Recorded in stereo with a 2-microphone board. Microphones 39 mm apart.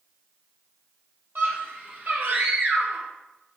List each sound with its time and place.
1.4 s a scream: 60° right (ahead or behind), 3 m; by 3.1 s 50° right (ahead or behind), 1.8 m